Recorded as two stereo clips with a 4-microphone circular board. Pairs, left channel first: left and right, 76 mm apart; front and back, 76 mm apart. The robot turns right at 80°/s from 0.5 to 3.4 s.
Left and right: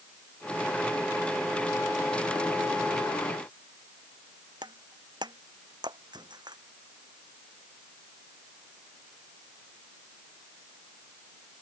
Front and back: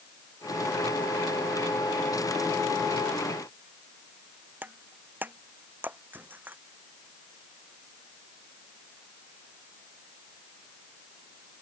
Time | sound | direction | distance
4.6 | breaking glass | 115° right | ?